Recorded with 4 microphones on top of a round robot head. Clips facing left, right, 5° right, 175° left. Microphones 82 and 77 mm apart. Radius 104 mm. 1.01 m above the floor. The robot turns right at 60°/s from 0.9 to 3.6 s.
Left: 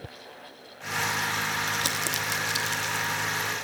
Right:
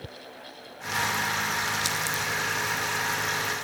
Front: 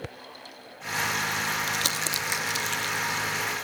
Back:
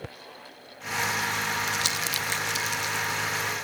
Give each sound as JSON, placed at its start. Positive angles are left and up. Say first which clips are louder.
{"t": 1.7, "sound": "crumpling", "louder": "right 1 dB, even", "azimuth_deg": 35, "distance_m": 1.4}